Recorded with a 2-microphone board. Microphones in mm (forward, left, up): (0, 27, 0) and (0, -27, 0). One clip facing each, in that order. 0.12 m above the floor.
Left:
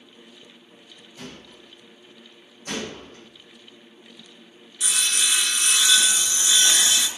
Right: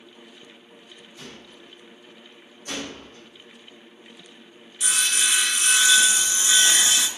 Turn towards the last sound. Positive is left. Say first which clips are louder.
# right 1 dB
turn(degrees=-25)  # may be behind; listen again after turning